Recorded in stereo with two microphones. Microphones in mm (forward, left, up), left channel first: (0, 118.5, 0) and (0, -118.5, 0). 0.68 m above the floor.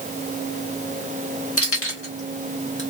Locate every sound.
1.6 s keys jangling: 70° left (ahead or behind), 1.4 m; by 2.8 s 55° left (ahead or behind), 1.0 m